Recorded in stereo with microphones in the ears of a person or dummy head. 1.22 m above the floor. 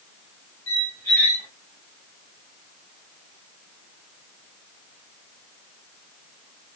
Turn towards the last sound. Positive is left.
turn(degrees=15)  # may be behind; listen again after turning